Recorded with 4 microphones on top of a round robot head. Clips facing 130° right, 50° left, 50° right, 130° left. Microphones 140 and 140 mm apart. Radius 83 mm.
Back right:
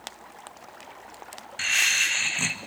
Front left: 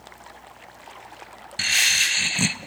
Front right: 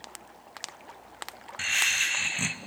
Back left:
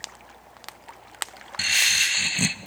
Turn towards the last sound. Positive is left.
turn(degrees=90)